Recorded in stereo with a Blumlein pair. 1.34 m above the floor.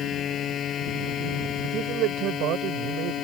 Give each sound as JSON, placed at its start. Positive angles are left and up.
{"t": 0.0, "sound": "a machine running", "azimuth_deg": 30}
{"t": 1.6, "sound": "a man speaking", "azimuth_deg": -35}